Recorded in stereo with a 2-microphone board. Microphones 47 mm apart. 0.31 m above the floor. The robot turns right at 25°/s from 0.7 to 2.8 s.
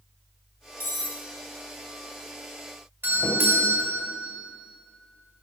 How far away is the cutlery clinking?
About 1.1 m.